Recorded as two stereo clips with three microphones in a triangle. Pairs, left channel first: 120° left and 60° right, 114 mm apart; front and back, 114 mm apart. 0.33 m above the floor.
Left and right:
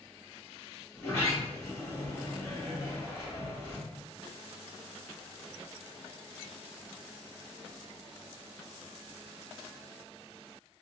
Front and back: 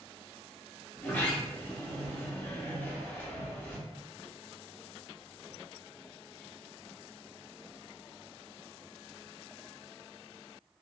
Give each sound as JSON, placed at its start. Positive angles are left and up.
{"t": 0.9, "sound": "a sliding door", "azimuth_deg": 65, "distance_m": 1.2}